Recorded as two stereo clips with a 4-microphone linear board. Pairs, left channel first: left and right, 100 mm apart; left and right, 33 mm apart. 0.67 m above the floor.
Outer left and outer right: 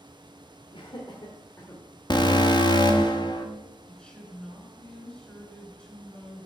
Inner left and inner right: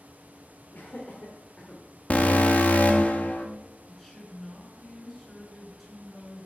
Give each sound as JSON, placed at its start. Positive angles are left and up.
{"t": 0.7, "sound": "laughter", "side_deg": 60, "distance_m": 1.6}
{"t": 2.1, "sound": "an alarm", "side_deg": 45, "distance_m": 1.3}
{"t": 3.9, "sound": "a woman speaking", "side_deg": 10, "distance_m": 4.5}